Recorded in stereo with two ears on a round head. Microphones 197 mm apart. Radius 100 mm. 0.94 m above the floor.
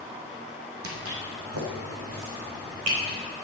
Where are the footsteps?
65° right (ahead or behind), 2.5 m; by 3.2 s 80° right, 4.5 m.